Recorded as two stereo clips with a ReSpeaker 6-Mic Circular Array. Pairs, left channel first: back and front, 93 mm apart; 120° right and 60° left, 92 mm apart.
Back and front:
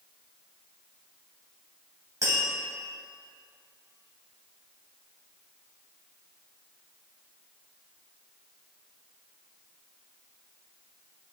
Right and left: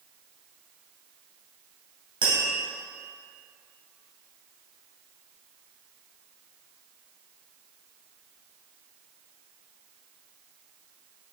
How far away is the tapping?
About 2.5 m.